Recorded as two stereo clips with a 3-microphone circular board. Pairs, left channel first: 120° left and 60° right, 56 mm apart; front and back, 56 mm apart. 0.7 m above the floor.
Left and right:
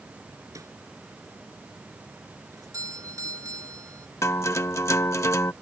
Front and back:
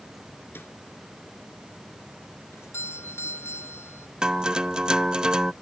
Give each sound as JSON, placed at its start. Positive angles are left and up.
{"t": 0.6, "sound": "a snare drum", "azimuth_deg": -50}
{"t": 2.5, "sound": "a doorbell", "azimuth_deg": -40}
{"t": 4.2, "sound": "a guitar", "azimuth_deg": 110}